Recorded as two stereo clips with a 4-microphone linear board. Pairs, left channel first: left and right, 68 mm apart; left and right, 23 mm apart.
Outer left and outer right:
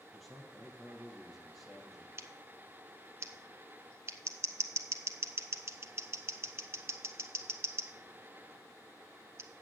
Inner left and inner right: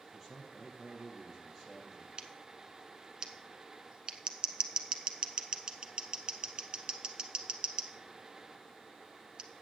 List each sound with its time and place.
0.1 s a man speaking: centre (ahead or behind), 4 m
2.2 s scissors: 45° right (ahead or behind), 0.9 m